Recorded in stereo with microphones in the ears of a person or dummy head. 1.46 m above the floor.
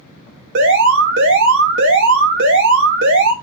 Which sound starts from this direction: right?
An alarm, at 0.6 s.